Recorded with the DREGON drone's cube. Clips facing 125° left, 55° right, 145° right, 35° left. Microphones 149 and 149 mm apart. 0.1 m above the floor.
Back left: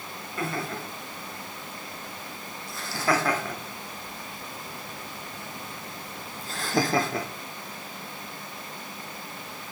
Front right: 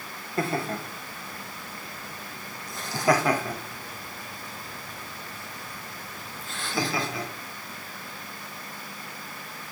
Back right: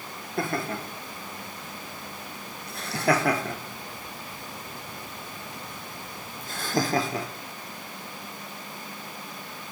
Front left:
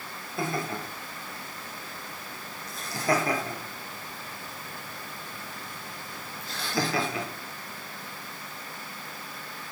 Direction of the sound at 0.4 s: 110° right.